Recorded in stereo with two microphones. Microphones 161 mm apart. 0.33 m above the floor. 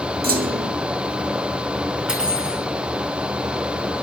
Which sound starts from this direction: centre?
Cutlery clinking, at 2.1 s.